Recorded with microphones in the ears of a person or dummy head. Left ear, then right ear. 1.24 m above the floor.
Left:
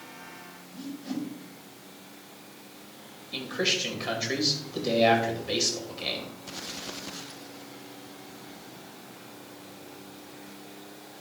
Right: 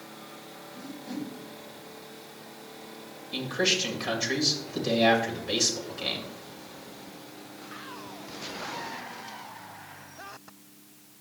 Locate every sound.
0.7 s a whoosh: 55° left (ahead or behind), 3.5 m
3.3 s a man speaking: 10° right (ahead or behind), 2.5 m